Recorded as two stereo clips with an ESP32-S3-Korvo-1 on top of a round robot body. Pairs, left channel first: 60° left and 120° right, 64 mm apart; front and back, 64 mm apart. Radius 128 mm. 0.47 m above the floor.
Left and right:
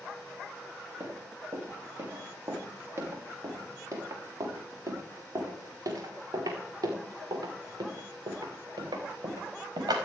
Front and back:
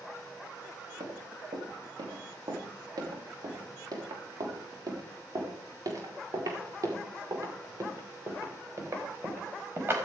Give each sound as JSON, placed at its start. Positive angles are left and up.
{"t": 1.0, "sound": "running footsteps", "azimuth_deg": 180, "distance_m": 5.5}